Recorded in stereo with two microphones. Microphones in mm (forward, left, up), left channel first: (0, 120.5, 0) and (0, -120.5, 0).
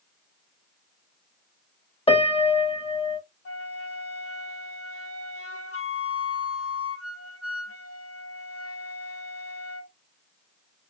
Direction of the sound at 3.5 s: 85° left.